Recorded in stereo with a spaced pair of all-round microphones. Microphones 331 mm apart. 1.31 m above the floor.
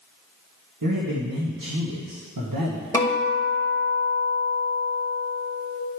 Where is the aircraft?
No aircraft in this recording.